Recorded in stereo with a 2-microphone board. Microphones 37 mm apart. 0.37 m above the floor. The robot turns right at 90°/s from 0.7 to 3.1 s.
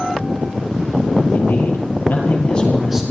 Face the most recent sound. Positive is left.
turn(degrees=-155)